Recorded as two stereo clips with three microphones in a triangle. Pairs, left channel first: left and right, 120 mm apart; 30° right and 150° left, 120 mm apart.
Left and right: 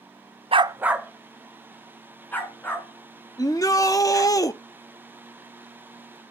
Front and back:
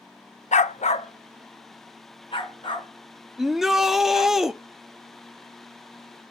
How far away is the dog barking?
About 0.5 m.